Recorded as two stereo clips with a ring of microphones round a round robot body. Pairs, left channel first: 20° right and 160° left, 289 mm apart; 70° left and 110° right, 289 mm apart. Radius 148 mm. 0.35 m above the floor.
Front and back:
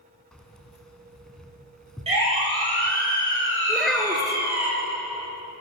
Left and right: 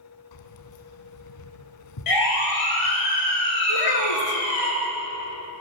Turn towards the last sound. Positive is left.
turn(degrees=65)